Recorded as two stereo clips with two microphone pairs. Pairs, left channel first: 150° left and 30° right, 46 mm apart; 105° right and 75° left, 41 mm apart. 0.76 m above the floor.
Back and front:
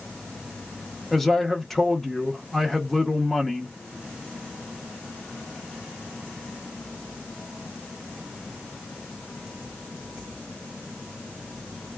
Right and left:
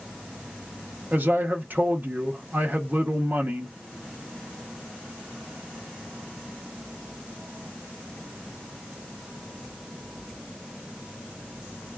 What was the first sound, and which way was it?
A man speaking, 65° left.